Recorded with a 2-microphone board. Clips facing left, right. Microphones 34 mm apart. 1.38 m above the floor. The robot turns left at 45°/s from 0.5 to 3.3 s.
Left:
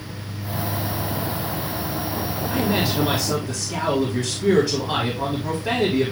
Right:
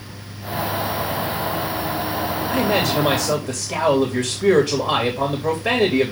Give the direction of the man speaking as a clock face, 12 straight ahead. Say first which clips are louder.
Right 3 dB; 3 o'clock.